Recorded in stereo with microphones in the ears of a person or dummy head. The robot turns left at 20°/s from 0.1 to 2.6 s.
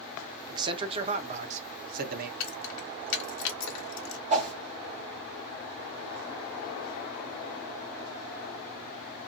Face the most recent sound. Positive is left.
turn(degrees=-35)  # may be behind; listen again after turning